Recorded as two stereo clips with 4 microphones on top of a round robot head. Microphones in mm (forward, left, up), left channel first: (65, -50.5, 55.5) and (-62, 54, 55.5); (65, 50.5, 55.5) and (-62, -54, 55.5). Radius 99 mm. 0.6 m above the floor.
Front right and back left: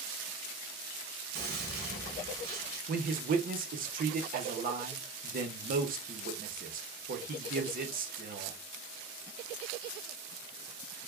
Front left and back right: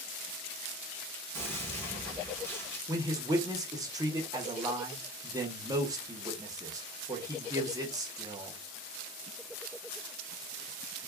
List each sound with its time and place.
1.4 s a gunshot: 115° left, 1.7 m
2.9 s a man speaking: 155° left, 1.0 m